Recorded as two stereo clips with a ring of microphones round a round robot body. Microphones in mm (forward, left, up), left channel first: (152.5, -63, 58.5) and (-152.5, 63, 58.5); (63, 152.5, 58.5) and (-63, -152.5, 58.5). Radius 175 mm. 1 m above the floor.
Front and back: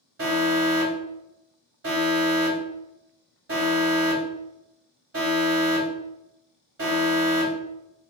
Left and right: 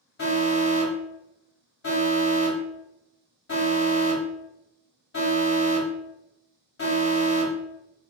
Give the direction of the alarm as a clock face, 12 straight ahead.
8 o'clock.